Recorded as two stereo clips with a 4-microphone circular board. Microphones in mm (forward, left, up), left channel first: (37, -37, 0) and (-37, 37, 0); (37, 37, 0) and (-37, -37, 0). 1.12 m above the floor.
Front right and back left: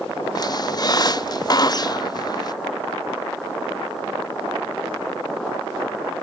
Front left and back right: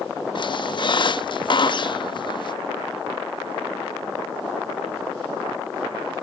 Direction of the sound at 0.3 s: 5° left.